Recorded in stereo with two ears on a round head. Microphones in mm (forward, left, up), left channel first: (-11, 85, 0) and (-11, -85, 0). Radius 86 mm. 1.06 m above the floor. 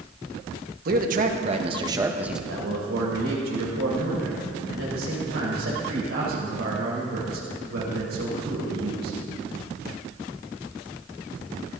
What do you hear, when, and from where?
0.8 s a man speaking: 45° right (ahead or behind), 1.4 m; by 2.4 s 5° right (ahead or behind), 1.0 m
2.5 s a man speaking: 65° right (ahead or behind), 4 m